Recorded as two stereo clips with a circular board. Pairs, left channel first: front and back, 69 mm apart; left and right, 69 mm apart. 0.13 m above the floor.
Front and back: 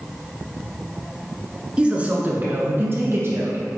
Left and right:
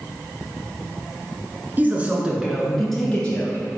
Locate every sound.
1.8 s a man speaking: 115° right, 1.2 m; by 3.6 s 155° left, 1.6 m